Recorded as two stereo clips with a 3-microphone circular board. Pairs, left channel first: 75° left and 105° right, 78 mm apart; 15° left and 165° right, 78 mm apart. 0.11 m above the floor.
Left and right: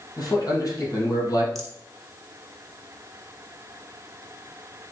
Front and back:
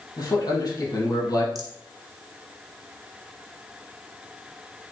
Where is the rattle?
165° left, 1.3 m.